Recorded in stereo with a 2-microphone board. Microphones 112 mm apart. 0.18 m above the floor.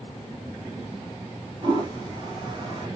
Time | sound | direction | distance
1.6 | a toilet flushing | 40° right (ahead or behind) | 2.5 m